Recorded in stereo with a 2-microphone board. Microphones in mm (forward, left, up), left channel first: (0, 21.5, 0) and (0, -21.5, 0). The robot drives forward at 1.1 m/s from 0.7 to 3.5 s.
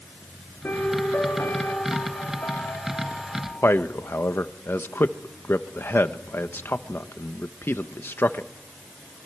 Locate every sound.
0.6 s a piano: 60° left (ahead or behind), 3 m; by 3.7 s 45° left (ahead or behind), 3.5 m
3.6 s a man speaking: 60° left (ahead or behind), 1.1 m